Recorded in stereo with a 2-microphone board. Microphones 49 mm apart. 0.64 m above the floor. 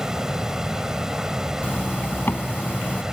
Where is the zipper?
40° left (ahead or behind).